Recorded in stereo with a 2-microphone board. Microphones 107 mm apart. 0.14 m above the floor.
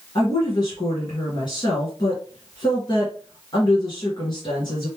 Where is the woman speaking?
40° left (ahead or behind), 1.8 m.